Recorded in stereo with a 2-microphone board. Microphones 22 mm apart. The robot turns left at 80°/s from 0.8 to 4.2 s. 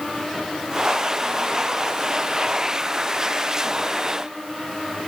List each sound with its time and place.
Only background noise.